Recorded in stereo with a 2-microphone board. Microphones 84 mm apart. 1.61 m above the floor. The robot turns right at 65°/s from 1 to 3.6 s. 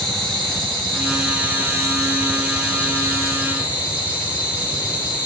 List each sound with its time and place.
0.0 s an insect: 175° left, 2.5 m; by 5.3 s 20° right, 2.5 m